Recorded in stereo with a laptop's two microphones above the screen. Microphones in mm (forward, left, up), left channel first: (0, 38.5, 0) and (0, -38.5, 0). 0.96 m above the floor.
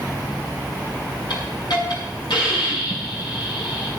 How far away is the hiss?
About 5.5 m.